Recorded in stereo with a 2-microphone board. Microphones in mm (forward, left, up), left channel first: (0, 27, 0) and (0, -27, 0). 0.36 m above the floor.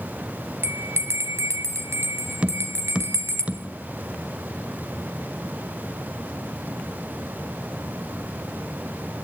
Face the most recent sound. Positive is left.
turn(degrees=-20)  # may be behind; listen again after turning